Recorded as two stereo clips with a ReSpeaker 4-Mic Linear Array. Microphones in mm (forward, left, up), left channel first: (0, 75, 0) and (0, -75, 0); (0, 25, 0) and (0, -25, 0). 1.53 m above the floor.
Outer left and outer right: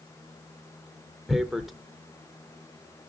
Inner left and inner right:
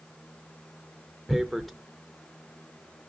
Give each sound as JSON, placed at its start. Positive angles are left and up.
{"t": 1.3, "sound": "tearing paper", "side_deg": 0, "distance_m": 0.6}